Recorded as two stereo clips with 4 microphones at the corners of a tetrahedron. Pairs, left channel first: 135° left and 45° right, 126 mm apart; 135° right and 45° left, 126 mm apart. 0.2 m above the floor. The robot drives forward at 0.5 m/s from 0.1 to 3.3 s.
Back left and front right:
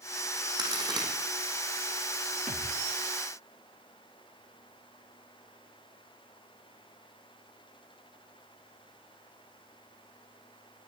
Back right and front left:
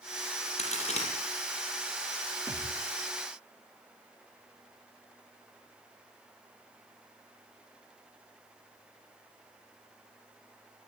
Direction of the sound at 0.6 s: 100° right.